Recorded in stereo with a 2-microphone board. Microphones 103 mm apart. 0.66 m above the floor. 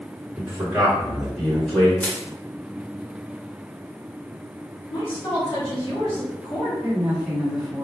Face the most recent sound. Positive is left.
turn(degrees=-15)  # may be behind; listen again after turning